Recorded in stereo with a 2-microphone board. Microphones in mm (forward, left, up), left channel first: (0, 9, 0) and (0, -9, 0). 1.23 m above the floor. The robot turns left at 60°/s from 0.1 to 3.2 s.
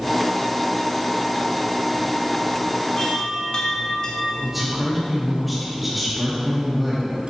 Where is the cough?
I don't hear a cough.